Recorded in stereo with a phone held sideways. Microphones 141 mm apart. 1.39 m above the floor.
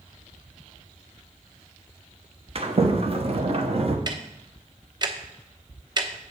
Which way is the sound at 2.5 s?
45° right (ahead or behind).